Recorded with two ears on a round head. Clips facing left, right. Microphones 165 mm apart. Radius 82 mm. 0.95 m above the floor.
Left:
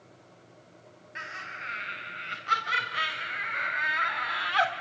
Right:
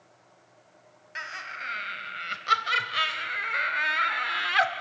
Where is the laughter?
60° right (ahead or behind), 5.5 m; by 4.7 s 20° right (ahead or behind), 2 m.